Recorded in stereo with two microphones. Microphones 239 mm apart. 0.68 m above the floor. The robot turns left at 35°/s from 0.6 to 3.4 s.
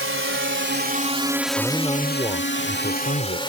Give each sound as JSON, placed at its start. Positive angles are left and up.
{"t": 0.0, "sound": "a drone", "side_deg": -65}
{"t": 1.6, "sound": "a man speaking", "azimuth_deg": 180}